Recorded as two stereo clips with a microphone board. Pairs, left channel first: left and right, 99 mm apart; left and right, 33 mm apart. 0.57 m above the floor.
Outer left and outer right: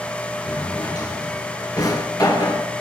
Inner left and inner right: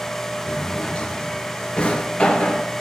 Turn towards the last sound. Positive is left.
turn(degrees=35)  # may be behind; listen again after turning